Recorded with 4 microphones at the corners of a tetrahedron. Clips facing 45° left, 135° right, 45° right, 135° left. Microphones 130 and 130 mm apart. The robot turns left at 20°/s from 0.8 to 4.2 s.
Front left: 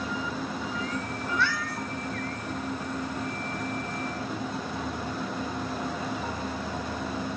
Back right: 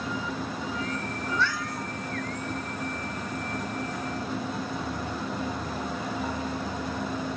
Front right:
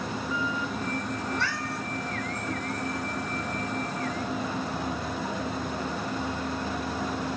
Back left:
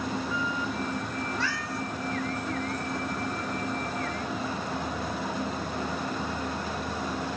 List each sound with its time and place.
1.3 s a cat meowing: 30° right, 3 m; by 1.9 s 40° right, 3 m